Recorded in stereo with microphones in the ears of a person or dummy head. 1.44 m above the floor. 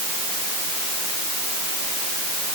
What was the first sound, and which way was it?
Only background noise.